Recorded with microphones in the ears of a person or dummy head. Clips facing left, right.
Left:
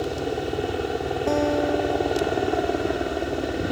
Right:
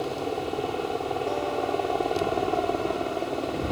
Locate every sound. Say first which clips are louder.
0.0 s a helicopter: left 3 dB; 20° left (ahead or behind)
1.3 s a guitar: left 9 dB; 70° left (ahead or behind)